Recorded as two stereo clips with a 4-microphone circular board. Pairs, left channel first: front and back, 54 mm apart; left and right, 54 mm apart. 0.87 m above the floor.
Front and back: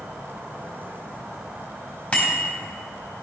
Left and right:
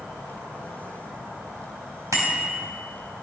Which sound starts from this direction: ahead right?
A bicycle bell, at 2.1 s.